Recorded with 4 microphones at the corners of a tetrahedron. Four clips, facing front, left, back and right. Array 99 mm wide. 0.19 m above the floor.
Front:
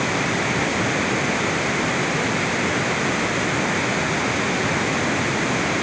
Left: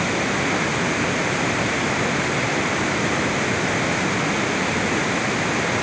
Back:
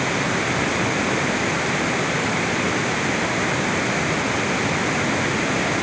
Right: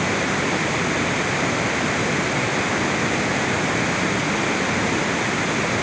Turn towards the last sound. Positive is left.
No sound to turn to.